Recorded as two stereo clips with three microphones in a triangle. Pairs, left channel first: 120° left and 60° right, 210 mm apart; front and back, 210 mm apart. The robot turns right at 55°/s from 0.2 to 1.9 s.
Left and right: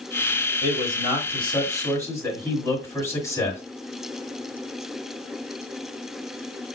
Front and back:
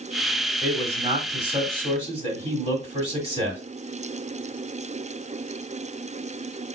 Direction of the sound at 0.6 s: 105° left.